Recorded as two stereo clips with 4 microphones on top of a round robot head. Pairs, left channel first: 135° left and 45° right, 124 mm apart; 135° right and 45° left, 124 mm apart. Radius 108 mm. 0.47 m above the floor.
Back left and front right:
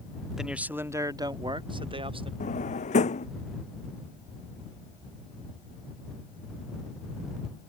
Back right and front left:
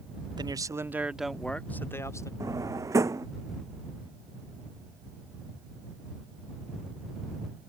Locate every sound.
0.4 s a man speaking: 40° left; by 2.3 s 75° right
2.4 s a drawer: 110° left